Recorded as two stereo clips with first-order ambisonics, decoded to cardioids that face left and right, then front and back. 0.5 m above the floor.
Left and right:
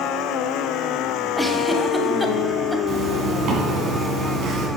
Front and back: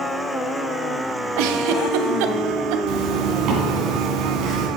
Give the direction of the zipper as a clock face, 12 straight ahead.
5 o'clock.